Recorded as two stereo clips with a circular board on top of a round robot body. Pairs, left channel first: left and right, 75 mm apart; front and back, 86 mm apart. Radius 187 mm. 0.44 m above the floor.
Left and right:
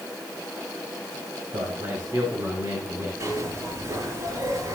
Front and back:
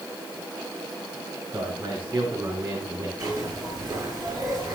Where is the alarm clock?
I don't hear an alarm clock.